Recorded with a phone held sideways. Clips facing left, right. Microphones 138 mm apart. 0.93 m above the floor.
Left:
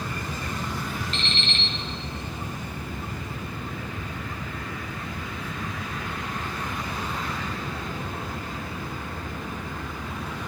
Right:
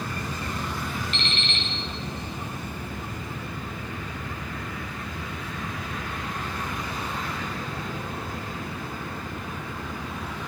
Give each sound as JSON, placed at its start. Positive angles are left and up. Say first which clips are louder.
{"t": 1.1, "sound": "an alarm clock", "louder": "even", "side_deg": 35, "distance_m": 2.5}